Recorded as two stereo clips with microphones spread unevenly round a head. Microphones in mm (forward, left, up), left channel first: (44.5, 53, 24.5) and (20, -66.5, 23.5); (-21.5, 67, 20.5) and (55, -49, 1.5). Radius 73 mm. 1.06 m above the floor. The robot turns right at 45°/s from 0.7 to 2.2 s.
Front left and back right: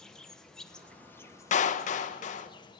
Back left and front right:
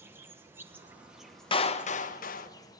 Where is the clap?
65° left, 0.8 m; by 2.5 s 100° left, 0.8 m.